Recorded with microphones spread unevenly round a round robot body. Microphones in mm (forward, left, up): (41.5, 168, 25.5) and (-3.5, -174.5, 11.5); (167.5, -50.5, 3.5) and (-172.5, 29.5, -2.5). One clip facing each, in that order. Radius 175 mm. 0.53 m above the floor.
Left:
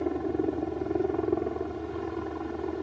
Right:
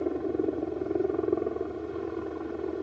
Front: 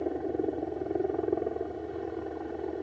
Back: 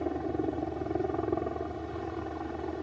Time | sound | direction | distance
0.0 | a helicopter | 150° left | ?